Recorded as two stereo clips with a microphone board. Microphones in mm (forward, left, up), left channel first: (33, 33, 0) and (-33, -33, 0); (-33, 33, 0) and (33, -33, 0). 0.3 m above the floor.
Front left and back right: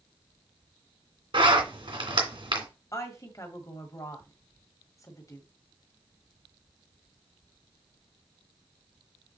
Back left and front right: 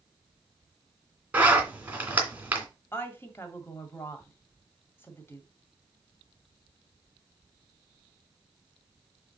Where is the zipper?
120° right, 2.5 m.